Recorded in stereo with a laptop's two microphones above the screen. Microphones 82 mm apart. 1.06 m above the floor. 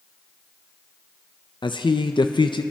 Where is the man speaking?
75° left (ahead or behind), 0.5 m.